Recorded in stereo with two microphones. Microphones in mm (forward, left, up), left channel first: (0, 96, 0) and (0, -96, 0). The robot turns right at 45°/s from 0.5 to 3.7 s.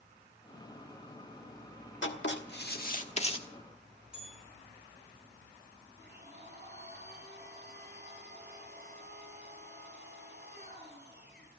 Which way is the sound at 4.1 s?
5° right (ahead or behind).